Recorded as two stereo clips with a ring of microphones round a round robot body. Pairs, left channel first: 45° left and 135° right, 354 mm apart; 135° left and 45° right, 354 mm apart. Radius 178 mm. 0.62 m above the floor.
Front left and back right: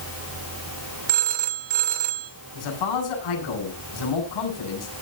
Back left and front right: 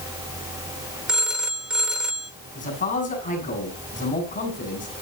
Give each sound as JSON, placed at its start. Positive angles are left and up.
{"t": 1.1, "sound": "a phone ringing", "azimuth_deg": -135, "distance_m": 1.7}
{"t": 2.5, "sound": "a man speaking", "azimuth_deg": 65, "distance_m": 7.5}